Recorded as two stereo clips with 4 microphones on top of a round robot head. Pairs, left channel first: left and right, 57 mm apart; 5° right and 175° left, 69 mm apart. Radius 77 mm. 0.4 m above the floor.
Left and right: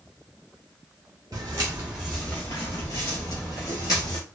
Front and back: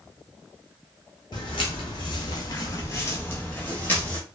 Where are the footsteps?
45° right, 0.6 m; by 4.2 s 65° left, 1.2 m.